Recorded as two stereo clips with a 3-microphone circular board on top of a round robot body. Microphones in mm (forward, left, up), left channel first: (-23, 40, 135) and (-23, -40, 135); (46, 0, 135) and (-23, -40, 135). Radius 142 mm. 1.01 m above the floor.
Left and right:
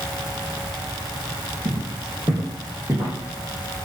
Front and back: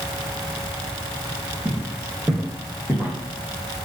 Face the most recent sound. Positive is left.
turn(degrees=-10)